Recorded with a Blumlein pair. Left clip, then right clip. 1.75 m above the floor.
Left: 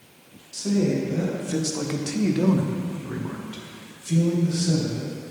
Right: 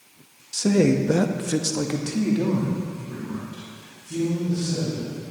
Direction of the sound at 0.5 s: 70° right.